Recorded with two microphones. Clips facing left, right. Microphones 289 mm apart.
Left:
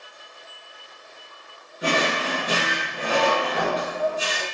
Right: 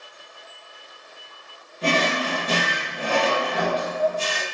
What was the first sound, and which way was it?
A drawer, 15° left (ahead or behind).